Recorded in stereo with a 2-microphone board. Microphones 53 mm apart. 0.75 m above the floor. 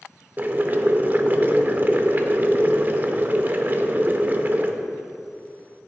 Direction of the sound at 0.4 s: 35° right (ahead or behind).